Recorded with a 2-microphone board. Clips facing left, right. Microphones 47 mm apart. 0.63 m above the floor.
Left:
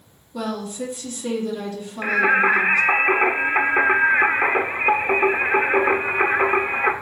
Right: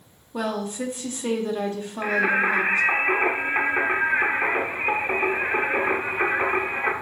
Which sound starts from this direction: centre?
Singing, at 2.0 s.